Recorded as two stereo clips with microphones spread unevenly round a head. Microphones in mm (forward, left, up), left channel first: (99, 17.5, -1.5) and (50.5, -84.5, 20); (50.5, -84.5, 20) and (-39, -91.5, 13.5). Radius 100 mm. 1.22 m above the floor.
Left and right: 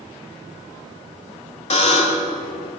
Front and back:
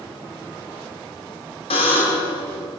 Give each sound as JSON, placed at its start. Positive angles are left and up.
{"t": 1.7, "sound": "a buzzer", "azimuth_deg": 55, "distance_m": 2.5}